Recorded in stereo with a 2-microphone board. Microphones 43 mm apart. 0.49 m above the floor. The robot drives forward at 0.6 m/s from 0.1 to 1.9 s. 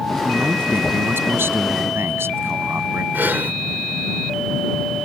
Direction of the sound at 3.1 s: 50° right (ahead or behind).